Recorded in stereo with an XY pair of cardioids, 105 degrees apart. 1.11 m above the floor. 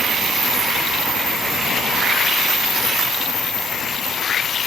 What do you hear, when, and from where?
Only background noise.